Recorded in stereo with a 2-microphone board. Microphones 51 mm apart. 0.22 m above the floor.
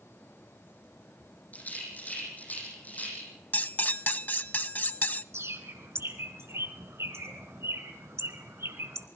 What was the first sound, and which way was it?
A rattle, 30° left (ahead or behind).